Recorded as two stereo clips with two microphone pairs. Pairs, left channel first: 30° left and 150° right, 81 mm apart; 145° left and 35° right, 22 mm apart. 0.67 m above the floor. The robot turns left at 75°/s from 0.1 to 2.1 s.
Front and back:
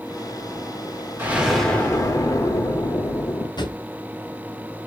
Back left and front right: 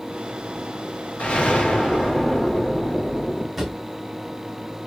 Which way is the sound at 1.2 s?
145° left.